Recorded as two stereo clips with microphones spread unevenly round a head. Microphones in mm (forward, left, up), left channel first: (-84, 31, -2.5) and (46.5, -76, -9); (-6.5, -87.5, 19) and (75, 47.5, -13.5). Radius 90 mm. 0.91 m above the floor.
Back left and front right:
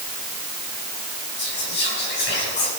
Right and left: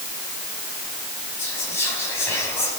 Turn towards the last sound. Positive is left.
turn(degrees=160)